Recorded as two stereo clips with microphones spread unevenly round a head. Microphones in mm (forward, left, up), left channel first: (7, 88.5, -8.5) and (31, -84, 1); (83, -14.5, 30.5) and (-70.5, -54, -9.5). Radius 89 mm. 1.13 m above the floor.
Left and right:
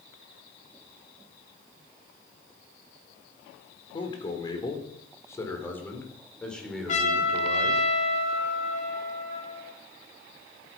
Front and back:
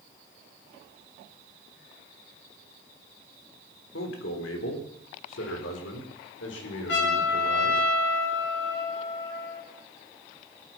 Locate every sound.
3.9 s a man speaking: 35° left, 3.5 m; by 7.8 s 5° left, 4.5 m
6.9 s a trumpet: 50° left, 5.5 m